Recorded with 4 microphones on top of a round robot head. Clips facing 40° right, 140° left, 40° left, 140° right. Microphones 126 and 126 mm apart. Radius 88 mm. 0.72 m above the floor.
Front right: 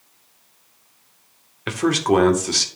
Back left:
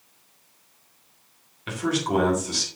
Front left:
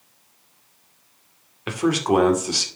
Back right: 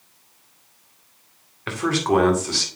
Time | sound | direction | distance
1.7 | a man speaking | 30° right | 2 m